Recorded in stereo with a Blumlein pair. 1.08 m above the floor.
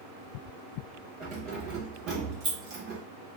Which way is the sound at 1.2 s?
30° right.